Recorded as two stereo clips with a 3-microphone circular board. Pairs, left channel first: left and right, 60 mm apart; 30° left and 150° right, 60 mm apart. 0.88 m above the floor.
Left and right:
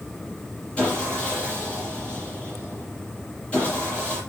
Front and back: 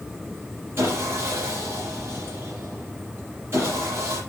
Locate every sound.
0.8 s sawing: 165° left, 6.5 m